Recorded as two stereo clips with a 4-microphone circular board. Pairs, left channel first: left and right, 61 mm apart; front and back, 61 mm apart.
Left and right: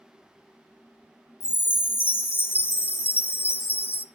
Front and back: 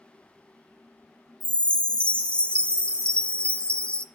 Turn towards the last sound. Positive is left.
turn(degrees=60)